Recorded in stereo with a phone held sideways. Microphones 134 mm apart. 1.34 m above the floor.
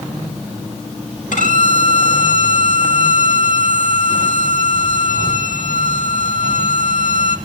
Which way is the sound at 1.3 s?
75° left (ahead or behind).